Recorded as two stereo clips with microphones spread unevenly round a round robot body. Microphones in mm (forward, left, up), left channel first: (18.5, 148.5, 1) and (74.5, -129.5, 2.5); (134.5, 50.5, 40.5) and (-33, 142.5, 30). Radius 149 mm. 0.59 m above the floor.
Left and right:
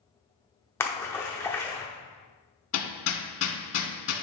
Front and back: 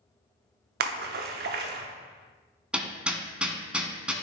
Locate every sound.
0.8 s a splash: 175° right, 0.6 m
2.7 s hammering: 65° left, 1.4 m